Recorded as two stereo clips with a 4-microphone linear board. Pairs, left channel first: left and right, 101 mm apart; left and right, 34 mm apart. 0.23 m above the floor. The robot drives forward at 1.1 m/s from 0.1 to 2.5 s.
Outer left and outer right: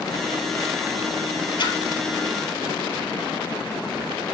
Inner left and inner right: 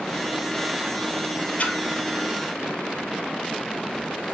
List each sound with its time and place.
1.6 s a splash: 55° left (ahead or behind), 1.1 m; by 1.8 s 65° left (ahead or behind), 1.0 m